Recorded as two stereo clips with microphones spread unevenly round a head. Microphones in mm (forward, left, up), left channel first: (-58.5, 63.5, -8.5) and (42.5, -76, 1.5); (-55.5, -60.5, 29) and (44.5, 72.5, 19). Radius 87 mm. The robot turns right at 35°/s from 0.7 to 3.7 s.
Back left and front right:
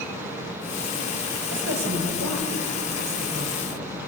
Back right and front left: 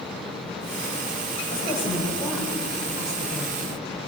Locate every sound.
1.5 s a woman speaking: 70° right, 5 m; by 3.6 s 5° left, 5 m